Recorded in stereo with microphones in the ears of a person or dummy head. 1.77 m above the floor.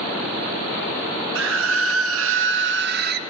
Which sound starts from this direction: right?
A scream, at 1.4 s.